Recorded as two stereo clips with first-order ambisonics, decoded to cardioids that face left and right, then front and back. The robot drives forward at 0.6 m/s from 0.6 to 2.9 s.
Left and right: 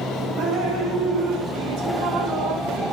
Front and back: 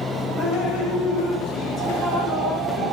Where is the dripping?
65° right, 8.5 m; by 2.9 s 75° right, 8 m.